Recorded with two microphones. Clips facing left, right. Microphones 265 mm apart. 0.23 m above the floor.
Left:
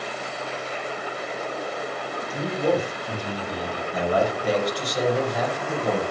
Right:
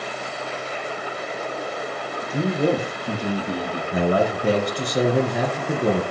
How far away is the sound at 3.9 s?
About 2.5 m.